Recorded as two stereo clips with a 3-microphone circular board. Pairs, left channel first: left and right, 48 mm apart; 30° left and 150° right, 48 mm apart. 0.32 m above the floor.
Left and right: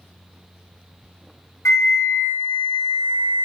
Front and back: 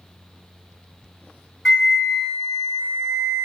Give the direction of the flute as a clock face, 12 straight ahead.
8 o'clock.